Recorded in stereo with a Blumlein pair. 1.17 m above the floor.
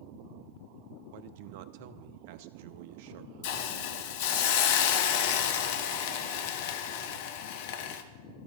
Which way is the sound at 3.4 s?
50° left.